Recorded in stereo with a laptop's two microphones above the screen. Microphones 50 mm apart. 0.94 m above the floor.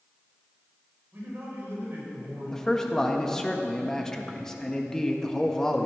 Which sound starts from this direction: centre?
A man speaking, at 2.5 s.